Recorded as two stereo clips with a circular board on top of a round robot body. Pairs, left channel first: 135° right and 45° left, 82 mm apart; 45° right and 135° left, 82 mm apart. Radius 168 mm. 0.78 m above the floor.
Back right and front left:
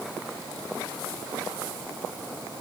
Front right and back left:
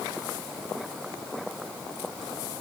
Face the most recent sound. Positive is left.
No sound to turn to.